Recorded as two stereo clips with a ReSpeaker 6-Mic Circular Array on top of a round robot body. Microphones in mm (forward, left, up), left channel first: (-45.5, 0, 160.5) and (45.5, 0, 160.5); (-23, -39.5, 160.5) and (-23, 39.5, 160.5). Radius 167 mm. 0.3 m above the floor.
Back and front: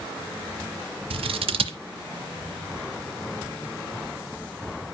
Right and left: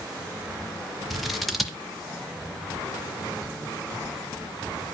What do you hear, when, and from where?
1.1 s scissors: straight ahead, 1.2 m